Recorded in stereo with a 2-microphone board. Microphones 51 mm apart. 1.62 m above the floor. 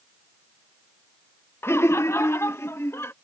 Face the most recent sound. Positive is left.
turn(degrees=60)  # may be behind; listen again after turning